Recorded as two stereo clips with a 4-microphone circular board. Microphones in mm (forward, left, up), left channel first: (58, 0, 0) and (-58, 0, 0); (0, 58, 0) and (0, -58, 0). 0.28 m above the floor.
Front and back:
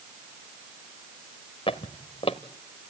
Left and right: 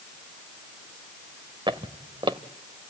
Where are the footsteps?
40° right, 1.3 m.